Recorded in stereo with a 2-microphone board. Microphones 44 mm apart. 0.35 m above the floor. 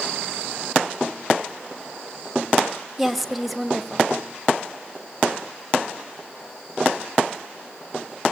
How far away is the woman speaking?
About 2.0 m.